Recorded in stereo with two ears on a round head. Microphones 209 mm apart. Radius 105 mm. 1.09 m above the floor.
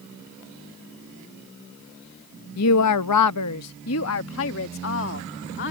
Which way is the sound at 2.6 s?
70° left (ahead or behind).